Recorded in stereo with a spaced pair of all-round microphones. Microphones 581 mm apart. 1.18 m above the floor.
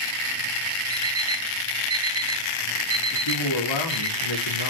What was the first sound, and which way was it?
An alarm clock, 55° right (ahead or behind).